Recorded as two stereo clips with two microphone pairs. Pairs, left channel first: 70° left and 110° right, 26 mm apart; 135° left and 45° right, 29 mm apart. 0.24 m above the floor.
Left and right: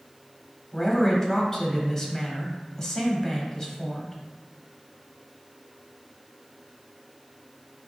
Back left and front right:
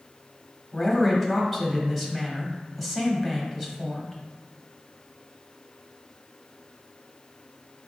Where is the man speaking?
50° left, 1.0 m.